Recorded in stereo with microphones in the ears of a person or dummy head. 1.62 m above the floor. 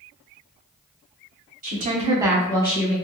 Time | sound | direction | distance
1.6 | a woman speaking | 50° right (ahead or behind) | 1.1 m